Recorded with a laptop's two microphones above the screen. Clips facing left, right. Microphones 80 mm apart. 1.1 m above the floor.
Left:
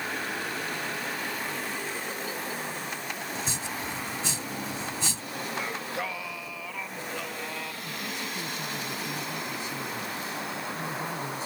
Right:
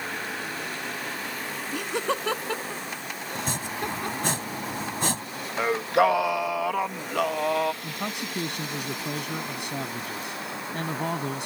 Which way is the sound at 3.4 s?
55° right (ahead or behind).